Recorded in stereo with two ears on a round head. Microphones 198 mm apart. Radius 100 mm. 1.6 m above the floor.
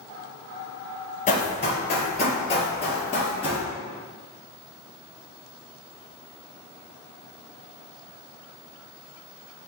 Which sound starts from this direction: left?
Running footsteps, at 1.3 s.